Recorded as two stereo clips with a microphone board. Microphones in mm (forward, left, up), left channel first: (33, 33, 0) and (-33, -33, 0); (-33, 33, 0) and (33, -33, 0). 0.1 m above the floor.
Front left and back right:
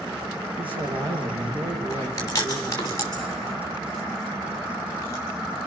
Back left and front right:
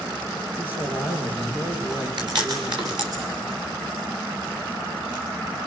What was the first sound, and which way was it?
A man speaking, 115° right.